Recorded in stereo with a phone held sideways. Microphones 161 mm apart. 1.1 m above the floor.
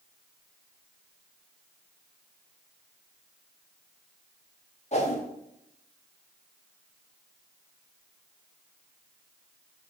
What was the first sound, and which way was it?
A whoosh, 40° left (ahead or behind).